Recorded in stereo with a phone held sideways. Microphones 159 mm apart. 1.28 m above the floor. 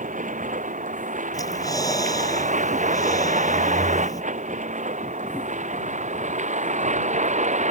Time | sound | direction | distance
0.0 | a vehicle | 55° right (ahead or behind) | ?
1.3 | breathing | 20° left (ahead or behind) | ?